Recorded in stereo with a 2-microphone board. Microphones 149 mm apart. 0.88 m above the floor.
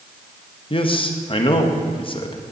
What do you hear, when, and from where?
0.7 s a man speaking: 35° left (ahead or behind), 1.0 m